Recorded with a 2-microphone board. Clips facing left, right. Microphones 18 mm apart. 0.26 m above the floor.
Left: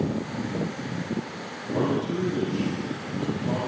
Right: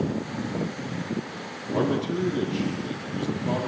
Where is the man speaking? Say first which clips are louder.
Right 1 dB; 10° right (ahead or behind), 3.5 m.